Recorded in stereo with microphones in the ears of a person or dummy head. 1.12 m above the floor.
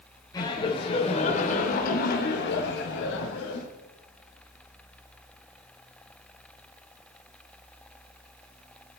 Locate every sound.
0.3 s laughter: 20° left (ahead or behind), 4 m; by 3.7 s 85° left, 4 m